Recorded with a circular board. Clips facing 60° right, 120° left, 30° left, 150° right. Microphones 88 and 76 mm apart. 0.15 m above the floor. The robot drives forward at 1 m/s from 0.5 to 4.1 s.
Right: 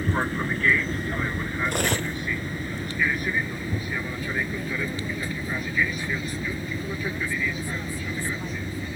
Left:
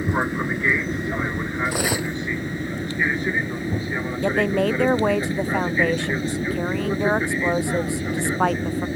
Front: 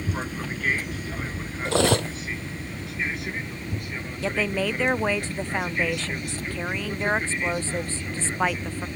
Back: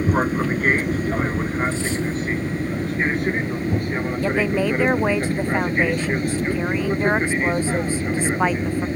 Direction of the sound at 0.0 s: 170° right.